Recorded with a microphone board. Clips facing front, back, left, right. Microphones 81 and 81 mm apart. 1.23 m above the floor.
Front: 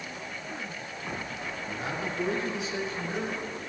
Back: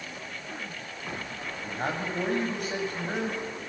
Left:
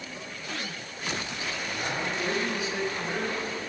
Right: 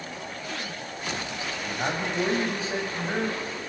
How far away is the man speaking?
About 8 m.